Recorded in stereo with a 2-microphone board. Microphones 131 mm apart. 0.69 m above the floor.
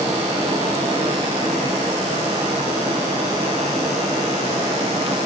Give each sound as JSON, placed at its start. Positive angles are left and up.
{"t": 0.0, "sound": "running water", "side_deg": -50, "distance_m": 10.0}